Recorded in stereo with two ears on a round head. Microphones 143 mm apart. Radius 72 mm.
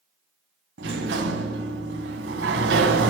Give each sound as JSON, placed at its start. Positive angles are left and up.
{"t": 0.8, "sound": "a sliding door", "side_deg": -80, "distance_m": 1.9}